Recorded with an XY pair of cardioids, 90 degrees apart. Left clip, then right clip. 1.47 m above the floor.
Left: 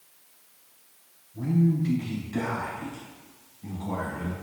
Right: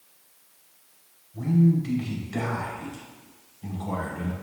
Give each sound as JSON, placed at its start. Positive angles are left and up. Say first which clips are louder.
{"t": 1.3, "sound": "a man speaking", "louder": "right 2 dB", "azimuth_deg": -55, "distance_m": 3.5}